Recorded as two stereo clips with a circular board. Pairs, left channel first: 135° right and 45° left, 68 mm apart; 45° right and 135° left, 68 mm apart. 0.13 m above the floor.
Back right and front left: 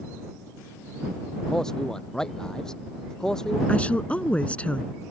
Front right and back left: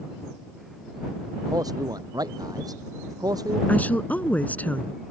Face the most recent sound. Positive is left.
turn(degrees=-85)